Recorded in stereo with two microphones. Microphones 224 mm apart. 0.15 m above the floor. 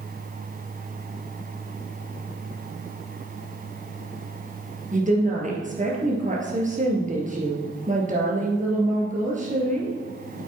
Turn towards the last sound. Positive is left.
turn(degrees=-35)  # may be behind; listen again after turning